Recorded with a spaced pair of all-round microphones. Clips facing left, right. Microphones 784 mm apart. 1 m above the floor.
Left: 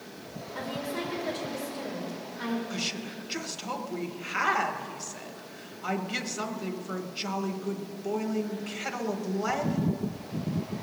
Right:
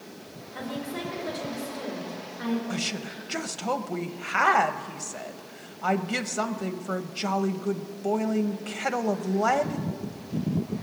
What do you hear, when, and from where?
0.6 s a woman speaking: centre (ahead or behind), 3.5 m
2.7 s a woman speaking: 75° right (ahead or behind), 0.9 m